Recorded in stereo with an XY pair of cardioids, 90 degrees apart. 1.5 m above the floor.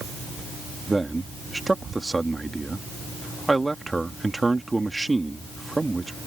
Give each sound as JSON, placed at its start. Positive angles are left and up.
{"t": 0.9, "sound": "a man speaking", "azimuth_deg": -20}